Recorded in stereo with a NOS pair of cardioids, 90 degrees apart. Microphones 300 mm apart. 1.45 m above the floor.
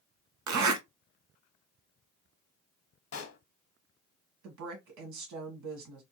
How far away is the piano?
I don't hear a piano.